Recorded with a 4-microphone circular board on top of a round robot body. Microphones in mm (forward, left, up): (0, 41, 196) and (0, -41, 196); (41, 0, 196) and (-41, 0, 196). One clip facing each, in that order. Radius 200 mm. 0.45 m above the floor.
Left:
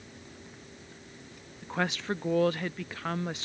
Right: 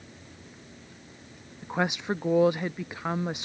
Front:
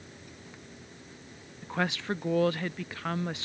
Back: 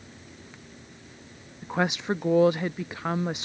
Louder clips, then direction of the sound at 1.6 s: Right 3 dB, back 4 dB; 140° right.